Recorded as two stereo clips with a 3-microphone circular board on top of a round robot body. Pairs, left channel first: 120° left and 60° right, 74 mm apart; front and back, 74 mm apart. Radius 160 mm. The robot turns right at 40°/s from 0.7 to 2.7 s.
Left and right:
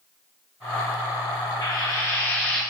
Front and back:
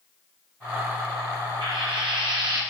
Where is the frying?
160° left, 0.8 m; by 2.6 s 160° right, 0.8 m.